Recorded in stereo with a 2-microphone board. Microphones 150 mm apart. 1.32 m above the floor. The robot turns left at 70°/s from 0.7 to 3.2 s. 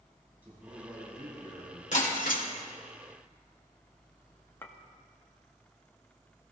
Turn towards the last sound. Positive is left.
turn(degrees=15)  # may be behind; listen again after turning